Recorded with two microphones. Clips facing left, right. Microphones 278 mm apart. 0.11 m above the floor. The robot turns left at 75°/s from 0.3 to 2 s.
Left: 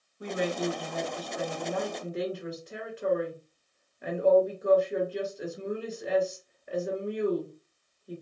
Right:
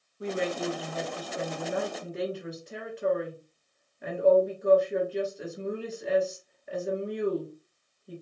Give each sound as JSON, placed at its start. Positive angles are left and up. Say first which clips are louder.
{"t": 0.2, "sound": "a woman speaking", "louder": "even", "azimuth_deg": -55, "distance_m": 1.3}